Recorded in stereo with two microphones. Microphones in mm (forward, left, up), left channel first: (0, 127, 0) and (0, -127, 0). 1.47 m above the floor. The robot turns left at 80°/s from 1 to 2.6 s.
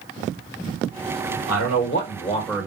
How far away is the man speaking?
About 1.5 m.